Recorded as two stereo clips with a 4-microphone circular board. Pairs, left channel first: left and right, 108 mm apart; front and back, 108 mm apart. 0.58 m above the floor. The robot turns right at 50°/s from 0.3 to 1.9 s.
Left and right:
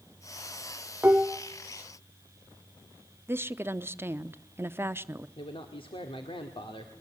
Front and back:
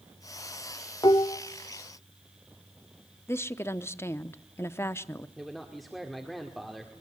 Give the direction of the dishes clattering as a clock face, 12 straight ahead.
1 o'clock.